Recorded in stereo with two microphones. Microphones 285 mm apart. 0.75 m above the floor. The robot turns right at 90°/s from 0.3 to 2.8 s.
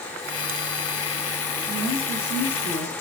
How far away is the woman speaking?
About 6.5 m.